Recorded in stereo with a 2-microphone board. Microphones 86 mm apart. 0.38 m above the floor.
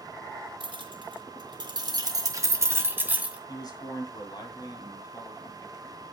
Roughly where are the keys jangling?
Right.